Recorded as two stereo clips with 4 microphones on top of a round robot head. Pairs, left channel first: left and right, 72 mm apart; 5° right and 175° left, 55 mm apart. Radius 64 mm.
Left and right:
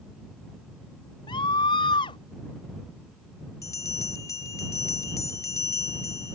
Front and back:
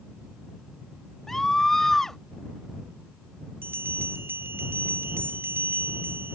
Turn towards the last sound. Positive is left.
turn(degrees=130)